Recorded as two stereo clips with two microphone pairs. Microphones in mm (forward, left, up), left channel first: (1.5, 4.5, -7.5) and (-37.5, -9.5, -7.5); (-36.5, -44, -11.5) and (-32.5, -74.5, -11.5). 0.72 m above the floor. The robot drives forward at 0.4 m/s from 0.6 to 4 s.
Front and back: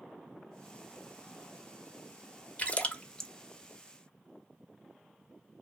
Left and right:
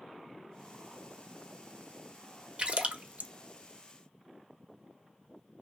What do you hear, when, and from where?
2.6 s a splash: 40° right, 0.7 m; by 3.3 s 60° right, 0.5 m